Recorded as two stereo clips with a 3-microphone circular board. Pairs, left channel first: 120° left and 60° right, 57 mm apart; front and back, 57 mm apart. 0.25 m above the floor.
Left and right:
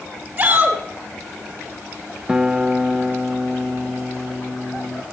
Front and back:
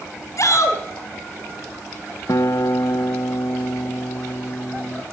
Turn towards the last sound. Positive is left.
turn(degrees=20)